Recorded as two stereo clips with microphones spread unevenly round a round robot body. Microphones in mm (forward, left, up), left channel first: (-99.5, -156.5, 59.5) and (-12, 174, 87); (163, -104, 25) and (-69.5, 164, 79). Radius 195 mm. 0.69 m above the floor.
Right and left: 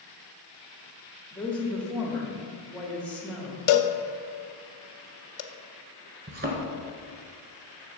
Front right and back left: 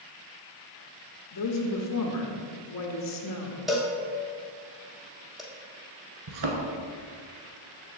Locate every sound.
1.3 s a woman speaking: 20° right, 1.3 m
3.7 s a cowbell: 140° right, 0.7 m
6.3 s a thud: 135° left, 1.2 m